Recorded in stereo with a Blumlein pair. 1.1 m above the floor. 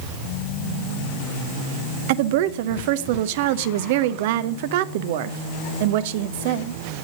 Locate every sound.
2.1 s a woman speaking: 50° right, 0.6 m